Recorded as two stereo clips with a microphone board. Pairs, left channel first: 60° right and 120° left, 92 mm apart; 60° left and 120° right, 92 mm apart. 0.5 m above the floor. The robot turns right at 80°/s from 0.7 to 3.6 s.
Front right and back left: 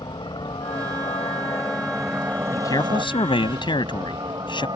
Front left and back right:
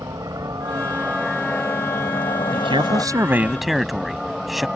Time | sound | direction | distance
0.0 | a helicopter | 75° right | ?
2.5 | a man speaking | 120° right | ?